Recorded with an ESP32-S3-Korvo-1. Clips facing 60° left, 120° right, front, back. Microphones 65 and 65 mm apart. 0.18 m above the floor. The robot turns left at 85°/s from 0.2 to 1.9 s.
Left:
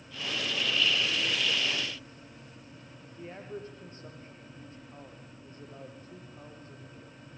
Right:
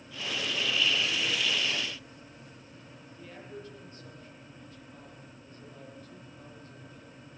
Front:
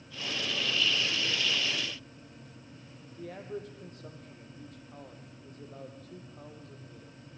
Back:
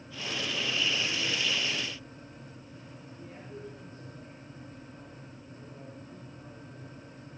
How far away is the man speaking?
About 6 m.